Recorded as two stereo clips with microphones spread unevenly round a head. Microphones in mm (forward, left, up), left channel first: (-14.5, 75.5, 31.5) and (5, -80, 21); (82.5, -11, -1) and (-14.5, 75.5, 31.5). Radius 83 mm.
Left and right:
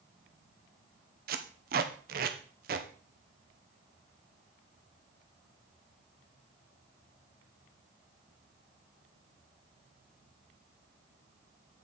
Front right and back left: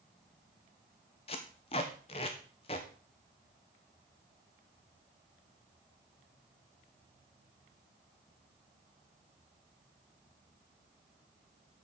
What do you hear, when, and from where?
1.3 s tape being pulled: 100° right, 0.8 m